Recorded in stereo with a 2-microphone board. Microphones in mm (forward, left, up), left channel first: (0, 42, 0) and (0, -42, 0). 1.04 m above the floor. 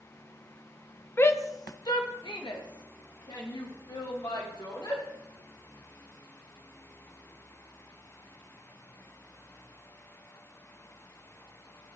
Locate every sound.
1.2 s a shout: 25° left (ahead or behind), 0.7 m; by 5.0 s 65° left (ahead or behind), 4 m